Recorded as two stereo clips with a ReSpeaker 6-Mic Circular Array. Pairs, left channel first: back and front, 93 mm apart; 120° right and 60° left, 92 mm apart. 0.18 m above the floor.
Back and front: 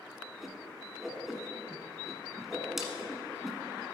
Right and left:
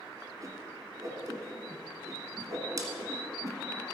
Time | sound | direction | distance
0.4 | a whoosh | 85° left | 1.3 m